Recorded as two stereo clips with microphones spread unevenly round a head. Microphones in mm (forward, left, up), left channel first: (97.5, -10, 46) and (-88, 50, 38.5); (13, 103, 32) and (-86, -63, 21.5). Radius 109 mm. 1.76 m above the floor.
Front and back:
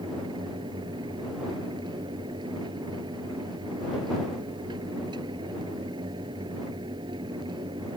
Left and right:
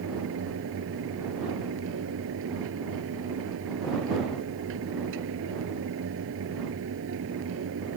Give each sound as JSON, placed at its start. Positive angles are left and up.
{"t": 0.0, "sound": "a fan", "azimuth_deg": -130}